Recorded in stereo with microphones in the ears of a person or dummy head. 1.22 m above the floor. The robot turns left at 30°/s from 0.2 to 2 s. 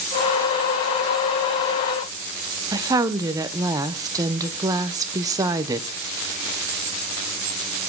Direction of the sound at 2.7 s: 20° right (ahead or behind).